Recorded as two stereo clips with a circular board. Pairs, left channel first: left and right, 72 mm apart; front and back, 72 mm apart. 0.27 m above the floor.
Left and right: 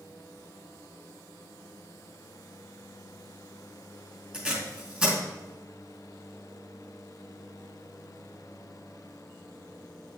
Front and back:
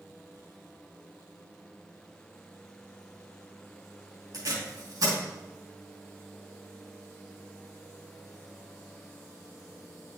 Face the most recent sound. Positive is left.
turn(degrees=-160)